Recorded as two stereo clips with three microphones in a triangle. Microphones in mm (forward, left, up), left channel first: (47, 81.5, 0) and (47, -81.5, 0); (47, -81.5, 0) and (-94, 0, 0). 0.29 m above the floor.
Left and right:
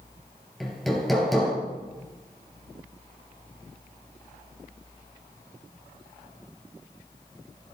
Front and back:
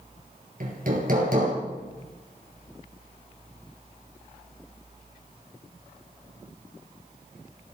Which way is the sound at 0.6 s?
Straight behind.